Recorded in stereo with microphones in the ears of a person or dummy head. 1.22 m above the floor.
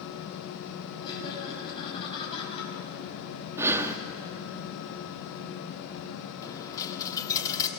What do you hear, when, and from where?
1.0 s laughter: 25° left (ahead or behind), 9 m; by 2.7 s 30° left (ahead or behind), 9 m
3.6 s breathing: 15° right (ahead or behind), 1.1 m
6.4 s a dropped coin: 20° left (ahead or behind), 1.3 m